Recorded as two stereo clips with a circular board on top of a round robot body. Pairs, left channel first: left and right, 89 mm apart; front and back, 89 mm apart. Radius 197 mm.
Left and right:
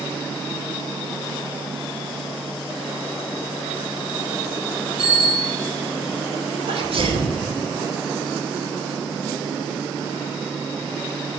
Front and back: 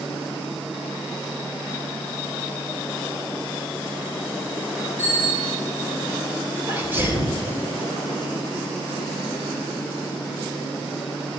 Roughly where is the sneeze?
Right.